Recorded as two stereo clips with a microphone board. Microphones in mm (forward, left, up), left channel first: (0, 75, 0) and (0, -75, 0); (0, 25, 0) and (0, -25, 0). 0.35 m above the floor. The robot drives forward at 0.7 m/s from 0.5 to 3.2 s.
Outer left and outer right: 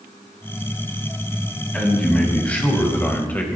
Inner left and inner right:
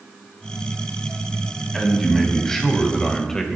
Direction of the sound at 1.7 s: 10° left (ahead or behind).